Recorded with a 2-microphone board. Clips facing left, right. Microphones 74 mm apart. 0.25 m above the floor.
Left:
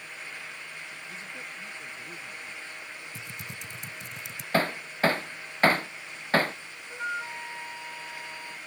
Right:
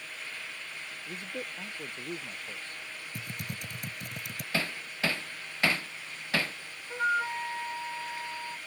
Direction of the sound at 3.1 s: 55° right (ahead or behind).